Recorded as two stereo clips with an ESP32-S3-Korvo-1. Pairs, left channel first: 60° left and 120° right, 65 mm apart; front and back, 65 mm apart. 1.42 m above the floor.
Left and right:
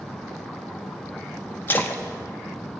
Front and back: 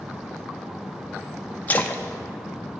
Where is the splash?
40° left, 0.9 m.